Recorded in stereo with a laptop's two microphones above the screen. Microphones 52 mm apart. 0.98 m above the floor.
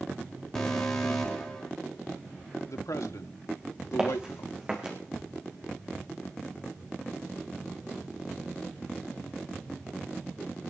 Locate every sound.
0.6 s an alarm: 5° left (ahead or behind), 4 m
2.7 s a man speaking: 75° left (ahead or behind), 1.6 m
4.0 s footsteps: 15° right (ahead or behind), 5 m